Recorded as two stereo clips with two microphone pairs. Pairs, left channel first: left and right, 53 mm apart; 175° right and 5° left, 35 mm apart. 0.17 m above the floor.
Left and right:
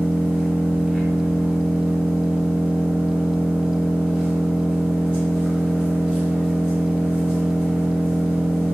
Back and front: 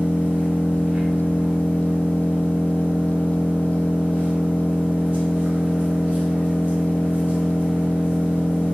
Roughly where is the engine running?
Ahead right.